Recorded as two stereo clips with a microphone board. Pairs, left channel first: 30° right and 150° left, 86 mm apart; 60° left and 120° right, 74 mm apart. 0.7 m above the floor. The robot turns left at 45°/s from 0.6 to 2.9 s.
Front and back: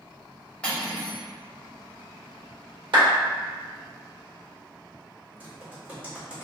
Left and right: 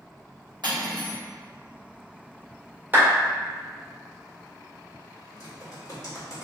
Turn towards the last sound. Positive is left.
turn(degrees=80)